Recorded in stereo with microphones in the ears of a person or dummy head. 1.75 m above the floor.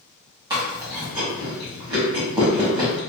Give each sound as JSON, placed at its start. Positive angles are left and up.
{"t": 0.5, "sound": "chewing", "side_deg": -20, "distance_m": 1.2}